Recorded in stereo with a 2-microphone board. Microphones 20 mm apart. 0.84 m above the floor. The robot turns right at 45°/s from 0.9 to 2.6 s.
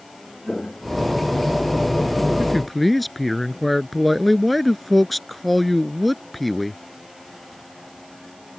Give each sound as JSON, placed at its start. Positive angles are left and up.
{"t": 0.5, "sound": "footsteps", "side_deg": 40}
{"t": 2.4, "sound": "a man speaking", "side_deg": 10}